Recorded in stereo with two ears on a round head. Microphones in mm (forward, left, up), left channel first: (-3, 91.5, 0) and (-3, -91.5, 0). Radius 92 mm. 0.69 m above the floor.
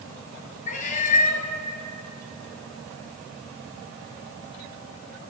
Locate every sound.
0.7 s a cat meowing: 40° left (ahead or behind), 1.4 m